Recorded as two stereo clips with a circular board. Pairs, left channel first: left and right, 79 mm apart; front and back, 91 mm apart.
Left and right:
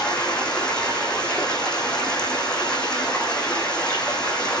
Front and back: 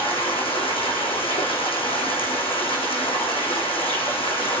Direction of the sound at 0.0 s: 10° left.